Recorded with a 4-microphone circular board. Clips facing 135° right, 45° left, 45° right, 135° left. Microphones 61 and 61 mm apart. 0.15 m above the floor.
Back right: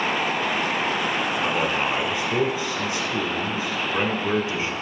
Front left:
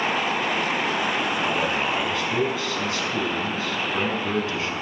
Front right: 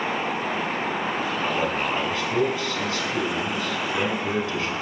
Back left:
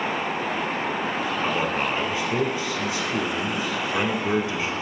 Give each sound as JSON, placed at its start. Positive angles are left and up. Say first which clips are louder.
{"t": 1.4, "sound": "a man speaking", "louder": "back right 1 dB, back left 1 dB", "azimuth_deg": 180, "distance_m": 1.1}